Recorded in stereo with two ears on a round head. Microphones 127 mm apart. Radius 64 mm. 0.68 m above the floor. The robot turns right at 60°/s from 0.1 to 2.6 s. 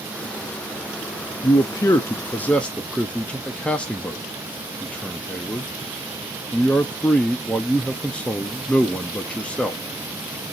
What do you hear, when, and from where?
1.4 s a man speaking: 25° left (ahead or behind), 0.5 m; by 9.8 s 10° left (ahead or behind), 0.5 m